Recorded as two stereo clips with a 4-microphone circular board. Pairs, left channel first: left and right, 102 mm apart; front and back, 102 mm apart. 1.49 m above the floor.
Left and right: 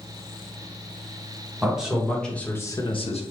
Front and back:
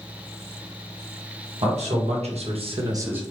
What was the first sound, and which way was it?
A man speaking, 175° right.